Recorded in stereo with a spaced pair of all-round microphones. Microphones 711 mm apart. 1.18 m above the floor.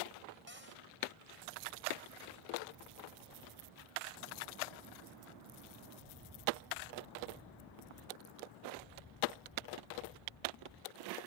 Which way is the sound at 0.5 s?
15° right (ahead or behind).